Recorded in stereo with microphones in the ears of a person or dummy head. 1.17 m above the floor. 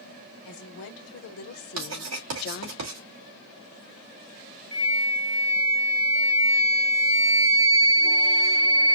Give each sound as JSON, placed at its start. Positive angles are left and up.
{"t": 0.5, "sound": "a woman speaking", "side_deg": 65, "distance_m": 1.4}
{"t": 1.8, "sound": "writing", "side_deg": -85, "distance_m": 2.5}
{"t": 4.7, "sound": "a flute", "side_deg": 35, "distance_m": 1.5}